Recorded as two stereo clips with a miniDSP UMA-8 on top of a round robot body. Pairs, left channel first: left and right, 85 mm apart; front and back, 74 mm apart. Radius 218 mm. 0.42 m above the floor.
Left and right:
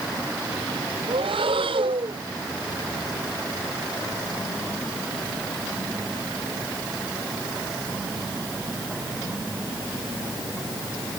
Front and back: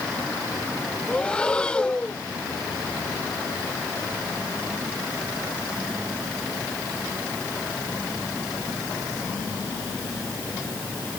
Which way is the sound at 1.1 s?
75° right.